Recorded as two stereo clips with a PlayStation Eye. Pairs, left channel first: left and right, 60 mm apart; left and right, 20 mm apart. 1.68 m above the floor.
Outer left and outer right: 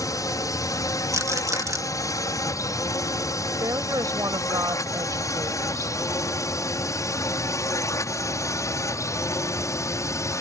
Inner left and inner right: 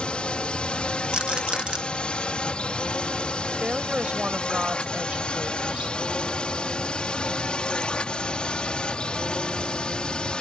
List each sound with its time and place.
0.0 s a drone: 60° left (ahead or behind); by 10.4 s 55° left (ahead or behind)
1.1 s a rattle: 55° right (ahead or behind)
3.6 s a woman speaking: 70° right (ahead or behind)